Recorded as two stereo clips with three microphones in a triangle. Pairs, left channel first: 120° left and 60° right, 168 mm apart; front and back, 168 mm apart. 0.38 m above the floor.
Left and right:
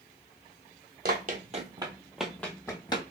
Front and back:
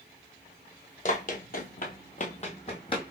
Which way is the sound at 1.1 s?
40° right.